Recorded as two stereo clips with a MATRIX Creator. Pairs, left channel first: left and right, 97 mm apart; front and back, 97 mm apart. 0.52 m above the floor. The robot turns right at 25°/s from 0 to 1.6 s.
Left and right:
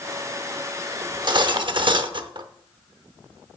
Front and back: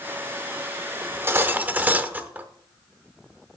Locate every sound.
1.0 s cutlery clinking: 125° right, 0.6 m; by 2.5 s 110° right, 0.6 m